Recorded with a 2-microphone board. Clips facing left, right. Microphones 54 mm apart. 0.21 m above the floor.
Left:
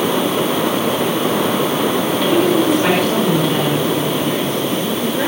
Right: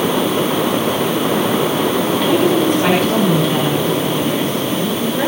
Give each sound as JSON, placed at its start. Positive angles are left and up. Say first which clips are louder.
{"t": 2.2, "sound": "a woman speaking", "louder": "left 1 dB", "side_deg": 0, "distance_m": 5.5}